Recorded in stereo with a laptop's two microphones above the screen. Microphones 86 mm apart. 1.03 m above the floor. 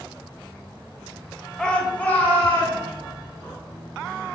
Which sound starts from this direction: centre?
A shout, at 1.6 s.